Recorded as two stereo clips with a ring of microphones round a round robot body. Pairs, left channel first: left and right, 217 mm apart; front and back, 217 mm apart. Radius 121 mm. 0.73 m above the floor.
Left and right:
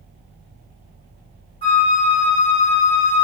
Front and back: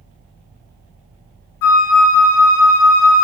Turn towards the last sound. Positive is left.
turn(degrees=20)